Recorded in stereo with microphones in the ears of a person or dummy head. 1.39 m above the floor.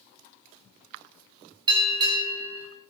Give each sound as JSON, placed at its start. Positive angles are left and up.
{"t": 1.7, "sound": "a bell", "side_deg": -25, "distance_m": 3.5}